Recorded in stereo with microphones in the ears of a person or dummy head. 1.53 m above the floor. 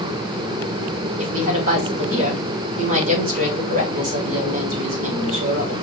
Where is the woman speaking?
75° right (ahead or behind), 2.5 m.